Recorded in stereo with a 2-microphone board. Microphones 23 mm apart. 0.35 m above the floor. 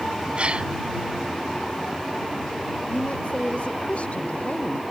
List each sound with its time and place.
0.4 s a gasp: 55° right (ahead or behind)
2.9 s a woman speaking: 60° left (ahead or behind)